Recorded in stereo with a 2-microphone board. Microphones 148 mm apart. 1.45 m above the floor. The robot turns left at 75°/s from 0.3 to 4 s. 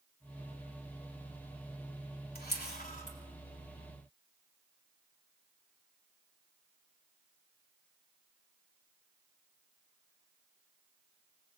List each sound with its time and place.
2.4 s a camera shutter: 75° left (ahead or behind), 3.5 m; by 3.2 s 45° left (ahead or behind), 3.5 m